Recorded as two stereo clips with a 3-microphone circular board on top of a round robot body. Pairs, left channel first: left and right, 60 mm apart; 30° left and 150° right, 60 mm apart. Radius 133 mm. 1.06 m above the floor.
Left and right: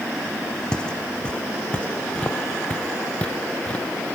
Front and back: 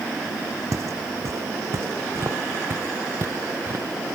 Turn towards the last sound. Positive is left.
turn(degrees=160)